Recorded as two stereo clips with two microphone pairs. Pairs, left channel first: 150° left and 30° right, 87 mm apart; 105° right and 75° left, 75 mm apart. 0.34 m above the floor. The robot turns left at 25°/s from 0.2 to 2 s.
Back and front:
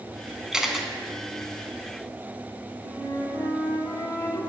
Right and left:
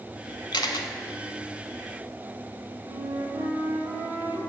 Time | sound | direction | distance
0.5 | a camera shutter | 110° right | 0.8 m
2.8 | a flute | 95° left | 2.5 m